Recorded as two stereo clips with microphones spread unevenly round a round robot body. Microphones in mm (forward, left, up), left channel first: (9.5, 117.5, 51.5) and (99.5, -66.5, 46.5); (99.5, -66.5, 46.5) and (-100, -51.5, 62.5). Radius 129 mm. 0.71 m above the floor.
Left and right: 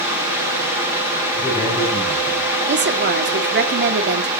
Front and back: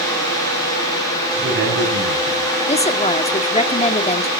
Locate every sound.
1.3 s a man speaking: 165° right, 6.5 m
2.7 s a woman speaking: 55° right, 1.9 m